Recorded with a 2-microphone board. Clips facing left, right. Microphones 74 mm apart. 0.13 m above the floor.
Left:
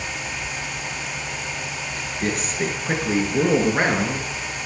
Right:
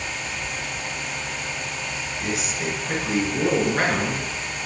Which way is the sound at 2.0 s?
50° left (ahead or behind).